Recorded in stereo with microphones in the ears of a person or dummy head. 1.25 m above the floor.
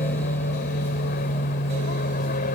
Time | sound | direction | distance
0.0 | an aircraft | 45° left (ahead or behind) | ?